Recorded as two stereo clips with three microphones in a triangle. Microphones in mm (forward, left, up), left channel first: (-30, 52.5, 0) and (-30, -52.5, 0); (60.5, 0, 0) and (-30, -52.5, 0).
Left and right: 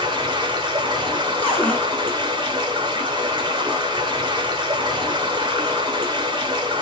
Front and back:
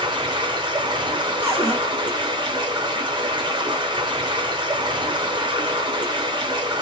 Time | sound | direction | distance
0.0 | running water | 120° right | 1.0 m
1.4 | a cupboard door | 160° left | 1.7 m